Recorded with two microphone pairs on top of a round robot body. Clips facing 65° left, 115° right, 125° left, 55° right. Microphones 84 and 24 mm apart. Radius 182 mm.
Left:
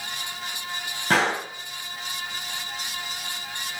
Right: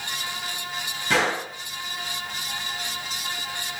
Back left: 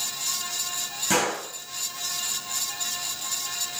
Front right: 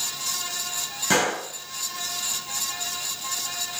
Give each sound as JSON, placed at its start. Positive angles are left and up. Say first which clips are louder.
{"t": 1.1, "sound": "a gunshot", "louder": "left 1 dB, front right 2 dB", "azimuth_deg": 15, "distance_m": 5.0}